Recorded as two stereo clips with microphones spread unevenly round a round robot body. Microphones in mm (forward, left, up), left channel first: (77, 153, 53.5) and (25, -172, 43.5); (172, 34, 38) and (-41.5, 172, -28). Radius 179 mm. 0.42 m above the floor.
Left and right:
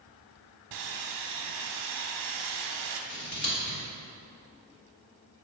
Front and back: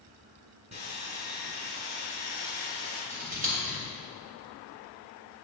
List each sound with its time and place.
0.7 s sawing: 135° right, 0.6 m
3.1 s scissors: 125° left, 1.8 m